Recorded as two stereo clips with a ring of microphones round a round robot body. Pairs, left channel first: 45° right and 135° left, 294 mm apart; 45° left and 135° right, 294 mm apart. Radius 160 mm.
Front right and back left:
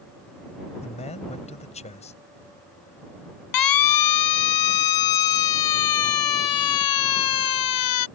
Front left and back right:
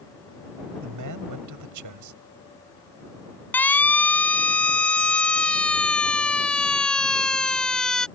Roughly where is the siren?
Ahead right.